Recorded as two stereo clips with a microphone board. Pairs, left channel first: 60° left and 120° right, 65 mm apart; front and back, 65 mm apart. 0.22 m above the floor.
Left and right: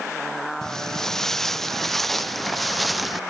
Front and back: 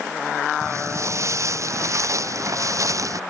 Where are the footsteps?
140° left; by 3.2 s 150° left.